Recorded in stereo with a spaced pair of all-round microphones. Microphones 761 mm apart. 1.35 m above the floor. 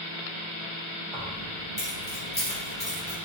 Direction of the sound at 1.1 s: 5° right (ahead or behind).